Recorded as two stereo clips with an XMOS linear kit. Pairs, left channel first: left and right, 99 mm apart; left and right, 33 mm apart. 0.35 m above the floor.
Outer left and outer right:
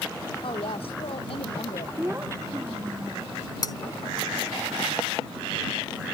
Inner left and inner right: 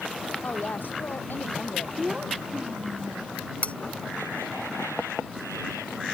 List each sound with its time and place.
0.4 s a woman speaking: 65° left (ahead or behind); by 1.9 s 70° left (ahead or behind)
2.0 s a child speaking: 25° right (ahead or behind)
3.6 s cutlery clinking: 45° left (ahead or behind)